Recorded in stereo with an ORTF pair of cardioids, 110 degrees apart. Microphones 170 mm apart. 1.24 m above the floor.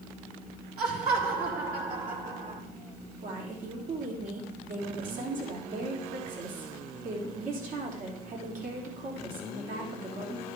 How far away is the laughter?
About 3.5 m.